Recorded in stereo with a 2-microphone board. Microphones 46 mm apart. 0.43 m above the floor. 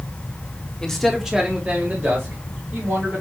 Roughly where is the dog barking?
No dog barking in this recording.